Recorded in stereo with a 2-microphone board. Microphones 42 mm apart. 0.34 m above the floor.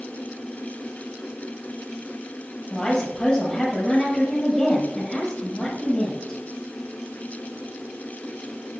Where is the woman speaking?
20° left (ahead or behind), 6 m.